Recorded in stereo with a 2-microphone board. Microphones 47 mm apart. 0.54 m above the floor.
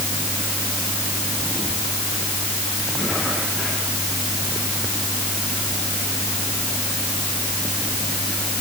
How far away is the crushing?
I don't hear crushing.